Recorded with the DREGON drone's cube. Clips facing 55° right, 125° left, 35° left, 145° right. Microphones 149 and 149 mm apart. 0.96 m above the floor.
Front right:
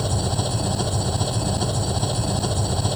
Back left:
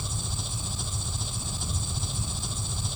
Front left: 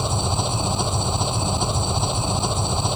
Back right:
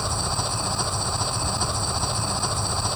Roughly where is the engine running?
Ahead right.